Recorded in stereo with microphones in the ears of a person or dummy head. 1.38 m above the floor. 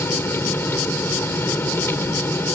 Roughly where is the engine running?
Centre.